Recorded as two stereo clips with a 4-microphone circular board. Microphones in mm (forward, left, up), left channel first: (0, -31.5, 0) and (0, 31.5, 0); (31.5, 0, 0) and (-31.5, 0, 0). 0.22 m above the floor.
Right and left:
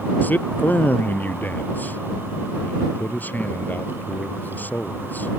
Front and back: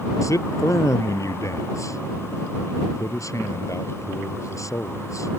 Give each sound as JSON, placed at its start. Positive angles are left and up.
{"t": 0.2, "sound": "a man speaking", "azimuth_deg": -30}